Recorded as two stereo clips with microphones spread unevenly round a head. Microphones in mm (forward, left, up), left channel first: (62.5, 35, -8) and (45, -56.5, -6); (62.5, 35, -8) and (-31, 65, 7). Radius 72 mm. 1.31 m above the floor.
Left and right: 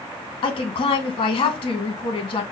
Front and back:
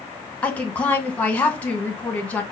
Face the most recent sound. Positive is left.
turn(degrees=55)